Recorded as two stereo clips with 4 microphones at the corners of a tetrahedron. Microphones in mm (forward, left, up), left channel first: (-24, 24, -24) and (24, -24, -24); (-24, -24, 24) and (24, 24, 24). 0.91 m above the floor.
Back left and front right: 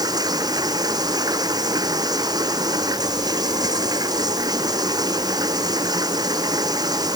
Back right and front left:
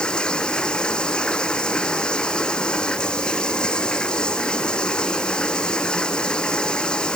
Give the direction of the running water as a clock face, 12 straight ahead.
2 o'clock.